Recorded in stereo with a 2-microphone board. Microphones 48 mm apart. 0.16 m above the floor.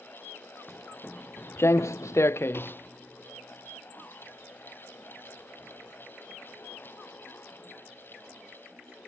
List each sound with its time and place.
0.7 s footsteps: 10° left (ahead or behind); by 8.5 s 20° left (ahead or behind)